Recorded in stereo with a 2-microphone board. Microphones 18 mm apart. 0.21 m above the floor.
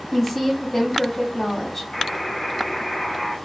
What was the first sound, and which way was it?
A woman speaking, 10° left (ahead or behind).